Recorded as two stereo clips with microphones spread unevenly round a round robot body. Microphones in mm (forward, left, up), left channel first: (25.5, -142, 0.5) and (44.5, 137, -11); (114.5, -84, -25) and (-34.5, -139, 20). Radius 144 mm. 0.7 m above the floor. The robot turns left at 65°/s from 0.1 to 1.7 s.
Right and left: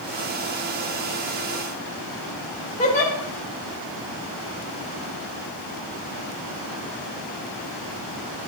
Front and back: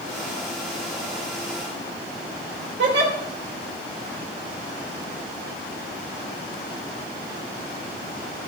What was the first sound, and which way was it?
A giggle, 160° right.